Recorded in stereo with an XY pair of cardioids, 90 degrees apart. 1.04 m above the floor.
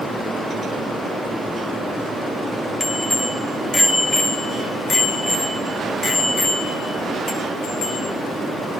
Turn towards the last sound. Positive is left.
turn(degrees=80)